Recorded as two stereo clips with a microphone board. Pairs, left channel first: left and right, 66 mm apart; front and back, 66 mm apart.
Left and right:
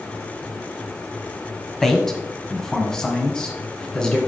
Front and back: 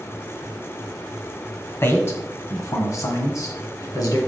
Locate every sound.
1.8 s a man speaking: 10° left, 1.5 m; by 4.2 s 15° left, 2.5 m